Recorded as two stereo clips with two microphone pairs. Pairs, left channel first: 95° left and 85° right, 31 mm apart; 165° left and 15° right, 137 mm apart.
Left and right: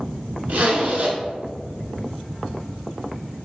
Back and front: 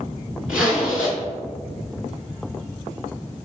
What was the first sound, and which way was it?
A zipper, 100° right.